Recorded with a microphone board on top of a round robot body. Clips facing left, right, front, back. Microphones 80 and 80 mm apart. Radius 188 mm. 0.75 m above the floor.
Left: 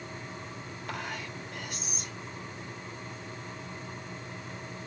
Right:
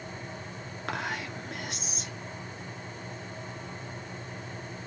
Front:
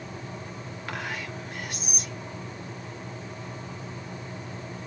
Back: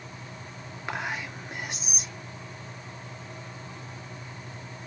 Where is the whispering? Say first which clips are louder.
Right 4 dB, back 2 dB; 110° right, 2.5 m.